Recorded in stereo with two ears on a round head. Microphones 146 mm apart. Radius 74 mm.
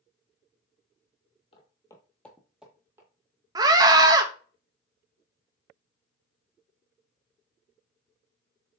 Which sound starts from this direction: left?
Footsteps, at 1.5 s.